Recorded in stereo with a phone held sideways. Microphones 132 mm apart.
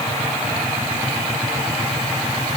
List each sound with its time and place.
Only background noise.